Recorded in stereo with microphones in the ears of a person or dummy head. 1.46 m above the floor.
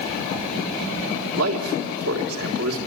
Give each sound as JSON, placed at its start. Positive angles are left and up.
{"t": 1.3, "sound": "a man speaking", "side_deg": -80, "distance_m": 3.5}